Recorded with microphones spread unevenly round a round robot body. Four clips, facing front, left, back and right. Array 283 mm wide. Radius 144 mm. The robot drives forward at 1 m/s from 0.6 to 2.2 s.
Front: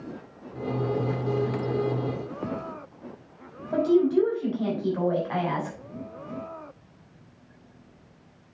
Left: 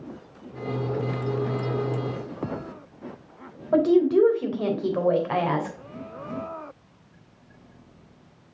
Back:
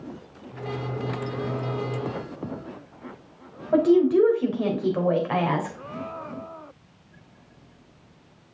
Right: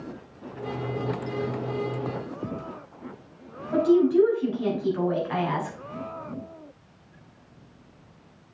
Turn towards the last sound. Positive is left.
turn(degrees=130)